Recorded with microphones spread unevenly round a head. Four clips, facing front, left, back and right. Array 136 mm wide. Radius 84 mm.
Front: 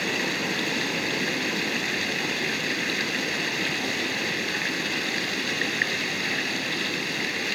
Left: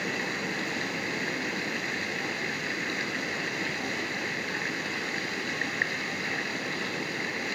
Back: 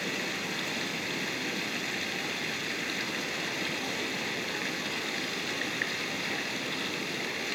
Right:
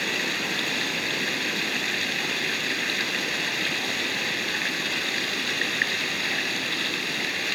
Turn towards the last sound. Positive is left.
turn(degrees=-70)